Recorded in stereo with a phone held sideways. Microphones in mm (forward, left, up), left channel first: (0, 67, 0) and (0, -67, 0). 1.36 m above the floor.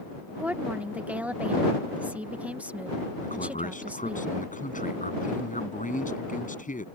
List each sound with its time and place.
0.4 s a woman speaking: 10° right (ahead or behind)
3.2 s a man speaking: 75° left (ahead or behind)